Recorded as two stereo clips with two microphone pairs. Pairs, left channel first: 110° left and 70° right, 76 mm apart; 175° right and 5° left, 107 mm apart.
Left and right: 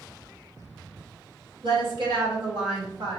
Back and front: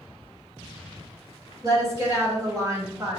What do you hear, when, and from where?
1.6 s a woman speaking: 55° right, 1.8 m